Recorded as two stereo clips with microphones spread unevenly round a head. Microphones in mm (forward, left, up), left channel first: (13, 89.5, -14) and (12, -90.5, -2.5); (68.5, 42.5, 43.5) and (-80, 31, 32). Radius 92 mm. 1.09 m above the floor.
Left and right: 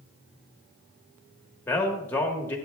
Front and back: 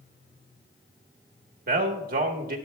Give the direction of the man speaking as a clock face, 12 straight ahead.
6 o'clock.